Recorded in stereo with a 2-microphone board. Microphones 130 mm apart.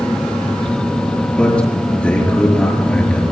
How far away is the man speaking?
About 6 m.